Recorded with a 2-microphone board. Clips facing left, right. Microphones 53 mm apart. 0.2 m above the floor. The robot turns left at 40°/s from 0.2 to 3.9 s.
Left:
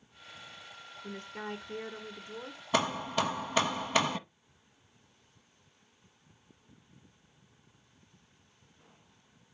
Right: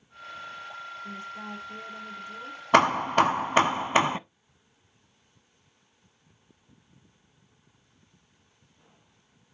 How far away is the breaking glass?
I don't hear breaking glass.